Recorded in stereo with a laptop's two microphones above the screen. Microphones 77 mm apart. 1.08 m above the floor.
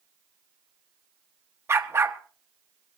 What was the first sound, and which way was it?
A dog barking, 35° right (ahead or behind).